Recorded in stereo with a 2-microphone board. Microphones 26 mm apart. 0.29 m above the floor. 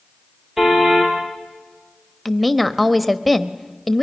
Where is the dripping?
I don't hear dripping.